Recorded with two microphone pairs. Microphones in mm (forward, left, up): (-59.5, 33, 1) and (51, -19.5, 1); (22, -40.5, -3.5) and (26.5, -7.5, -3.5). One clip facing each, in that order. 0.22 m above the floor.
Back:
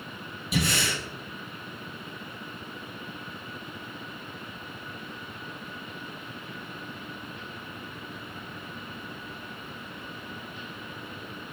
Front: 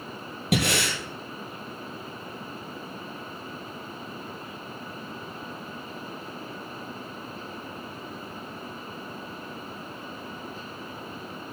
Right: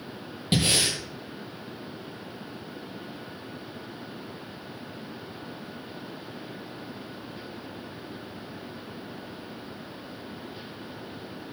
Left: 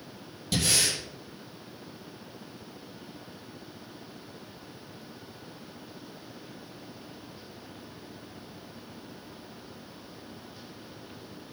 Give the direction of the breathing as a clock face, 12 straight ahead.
1 o'clock.